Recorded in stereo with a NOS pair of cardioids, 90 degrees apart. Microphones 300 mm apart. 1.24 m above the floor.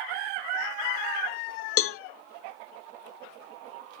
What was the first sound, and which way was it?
A cowbell, 50° left.